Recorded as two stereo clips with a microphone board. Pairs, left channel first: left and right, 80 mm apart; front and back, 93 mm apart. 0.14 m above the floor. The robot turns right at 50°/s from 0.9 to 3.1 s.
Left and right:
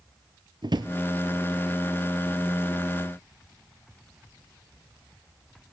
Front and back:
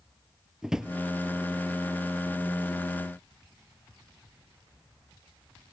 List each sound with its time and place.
0.6 s a drawer: 95° right, 0.8 m